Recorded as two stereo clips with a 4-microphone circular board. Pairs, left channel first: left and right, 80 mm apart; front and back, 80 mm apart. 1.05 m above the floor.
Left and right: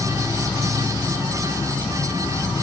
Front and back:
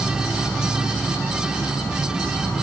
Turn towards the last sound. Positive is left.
turn(degrees=90)